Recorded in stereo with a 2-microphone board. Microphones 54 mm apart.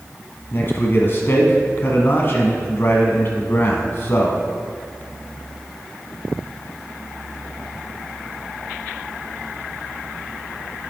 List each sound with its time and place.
0.5 s a man speaking: 40° left (ahead or behind), 1.4 m